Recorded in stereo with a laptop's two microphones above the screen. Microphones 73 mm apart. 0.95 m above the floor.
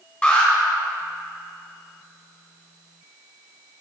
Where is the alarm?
20° left (ahead or behind), 4 m.